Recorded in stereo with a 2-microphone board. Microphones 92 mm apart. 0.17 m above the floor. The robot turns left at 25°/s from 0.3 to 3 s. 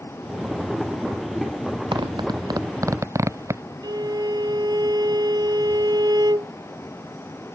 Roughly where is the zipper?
Right.